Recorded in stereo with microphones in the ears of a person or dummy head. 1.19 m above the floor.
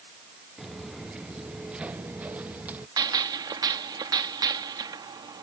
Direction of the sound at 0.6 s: 5° right (ahead or behind).